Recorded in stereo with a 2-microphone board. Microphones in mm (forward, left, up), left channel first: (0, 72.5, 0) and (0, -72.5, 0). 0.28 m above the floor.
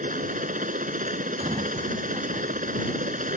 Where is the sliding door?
35° right (ahead or behind).